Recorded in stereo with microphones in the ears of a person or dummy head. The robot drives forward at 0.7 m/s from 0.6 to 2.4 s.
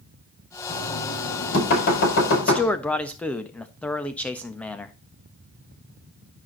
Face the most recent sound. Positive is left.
turn(degrees=0)  # may be behind; listen again after turning